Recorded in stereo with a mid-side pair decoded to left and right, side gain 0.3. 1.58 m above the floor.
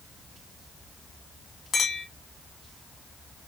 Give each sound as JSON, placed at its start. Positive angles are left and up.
{"t": 1.7, "sound": "a clink", "azimuth_deg": 65, "distance_m": 1.8}